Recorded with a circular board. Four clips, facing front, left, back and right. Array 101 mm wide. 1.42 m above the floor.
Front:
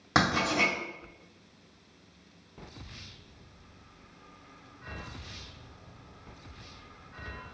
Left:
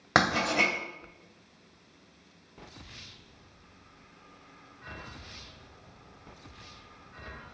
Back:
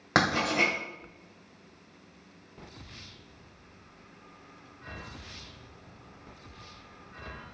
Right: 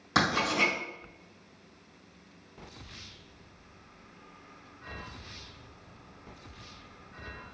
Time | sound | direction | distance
0.1 | writing | 110° left | 1.8 m